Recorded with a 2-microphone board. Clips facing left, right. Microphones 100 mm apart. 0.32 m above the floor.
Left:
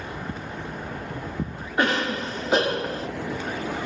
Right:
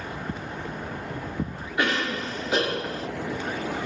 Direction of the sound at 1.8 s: 40° left (ahead or behind).